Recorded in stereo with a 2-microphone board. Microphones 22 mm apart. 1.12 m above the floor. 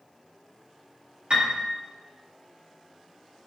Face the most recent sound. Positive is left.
turn(degrees=-60)  # may be behind; listen again after turning